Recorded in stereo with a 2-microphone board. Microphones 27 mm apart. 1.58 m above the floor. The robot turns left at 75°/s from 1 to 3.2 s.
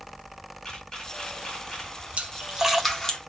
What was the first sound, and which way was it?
A camera shutter, 25° left (ahead or behind).